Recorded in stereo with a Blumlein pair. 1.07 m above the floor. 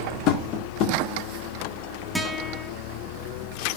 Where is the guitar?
5° right, 1.5 m.